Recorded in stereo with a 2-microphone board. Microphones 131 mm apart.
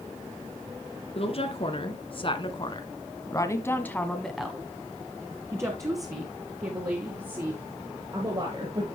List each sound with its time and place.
1.1 s a woman speaking: 50° left (ahead or behind), 2.5 m; by 8.8 s 40° right (ahead or behind), 4 m